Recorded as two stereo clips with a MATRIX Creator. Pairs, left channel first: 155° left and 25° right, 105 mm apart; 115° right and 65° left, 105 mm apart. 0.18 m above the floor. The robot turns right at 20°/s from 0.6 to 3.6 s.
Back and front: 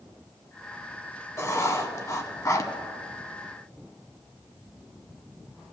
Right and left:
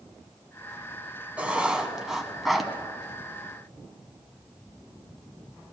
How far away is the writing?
About 0.8 m.